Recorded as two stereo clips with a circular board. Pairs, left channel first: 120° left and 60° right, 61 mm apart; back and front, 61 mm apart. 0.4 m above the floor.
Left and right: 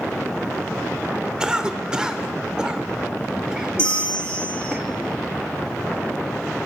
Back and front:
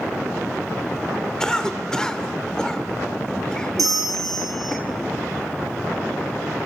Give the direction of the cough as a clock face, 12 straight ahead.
4 o'clock.